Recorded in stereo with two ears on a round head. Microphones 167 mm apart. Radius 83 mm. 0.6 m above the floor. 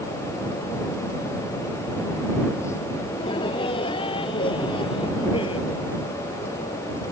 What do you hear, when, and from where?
3.1 s laughter: 30° left (ahead or behind)